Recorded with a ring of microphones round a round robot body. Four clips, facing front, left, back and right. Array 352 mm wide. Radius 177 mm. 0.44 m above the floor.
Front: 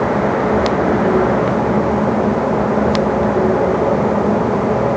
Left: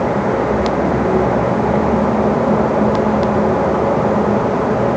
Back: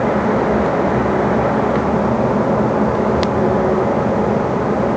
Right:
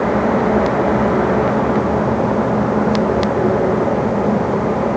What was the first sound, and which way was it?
Only background noise.